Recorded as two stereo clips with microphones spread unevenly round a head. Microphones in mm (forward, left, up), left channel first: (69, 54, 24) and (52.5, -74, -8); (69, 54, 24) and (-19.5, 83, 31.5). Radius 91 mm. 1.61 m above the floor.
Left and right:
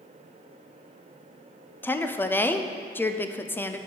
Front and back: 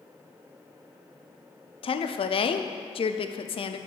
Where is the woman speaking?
5° left, 0.6 m.